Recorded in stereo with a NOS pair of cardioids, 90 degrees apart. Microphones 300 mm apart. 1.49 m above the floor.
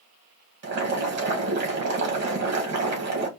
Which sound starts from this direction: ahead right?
Boiling, at 0.6 s.